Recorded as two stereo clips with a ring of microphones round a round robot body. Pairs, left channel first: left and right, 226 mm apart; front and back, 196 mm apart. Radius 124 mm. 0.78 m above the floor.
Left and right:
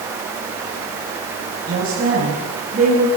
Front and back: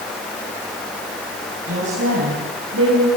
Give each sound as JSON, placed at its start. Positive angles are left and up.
{"t": 1.7, "sound": "a woman speaking", "azimuth_deg": -145, "distance_m": 6.5}